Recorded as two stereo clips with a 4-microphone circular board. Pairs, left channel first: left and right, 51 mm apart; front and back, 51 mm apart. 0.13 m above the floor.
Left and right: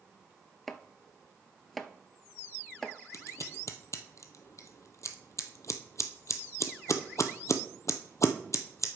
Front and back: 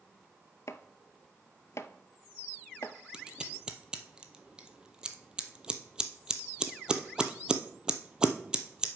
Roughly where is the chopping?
Ahead.